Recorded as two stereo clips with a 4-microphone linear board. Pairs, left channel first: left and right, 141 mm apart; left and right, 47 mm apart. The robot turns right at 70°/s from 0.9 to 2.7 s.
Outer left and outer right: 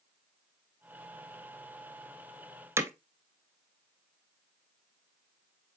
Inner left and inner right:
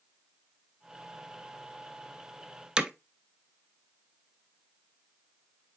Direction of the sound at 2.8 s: 20° right (ahead or behind).